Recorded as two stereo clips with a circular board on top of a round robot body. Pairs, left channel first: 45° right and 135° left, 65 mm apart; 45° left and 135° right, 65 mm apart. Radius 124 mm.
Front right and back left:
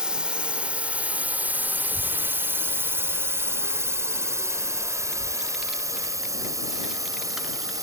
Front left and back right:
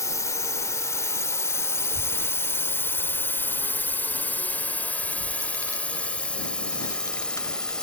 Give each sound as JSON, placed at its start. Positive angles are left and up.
{"t": 0.0, "sound": "a drone", "azimuth_deg": 60}
{"t": 1.8, "sound": "a child speaking", "azimuth_deg": 55}